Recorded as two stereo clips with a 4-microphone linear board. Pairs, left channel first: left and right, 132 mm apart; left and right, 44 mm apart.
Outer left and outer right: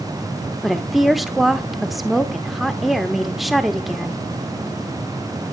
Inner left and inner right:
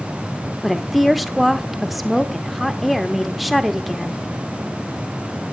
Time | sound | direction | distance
0.6 | a woman speaking | centre (ahead or behind) | 1.0 m